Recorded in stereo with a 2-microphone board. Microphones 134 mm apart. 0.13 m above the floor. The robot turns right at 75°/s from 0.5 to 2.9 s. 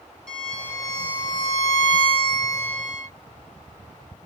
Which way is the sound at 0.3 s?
5° left.